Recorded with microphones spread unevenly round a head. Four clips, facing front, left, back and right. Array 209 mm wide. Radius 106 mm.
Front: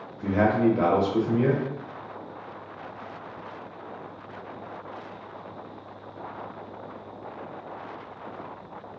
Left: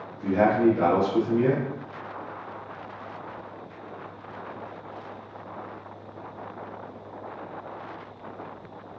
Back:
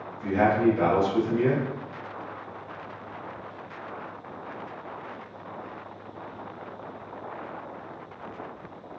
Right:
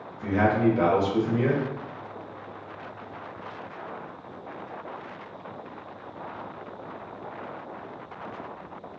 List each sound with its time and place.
0.2 s a man speaking: 20° right, 0.9 m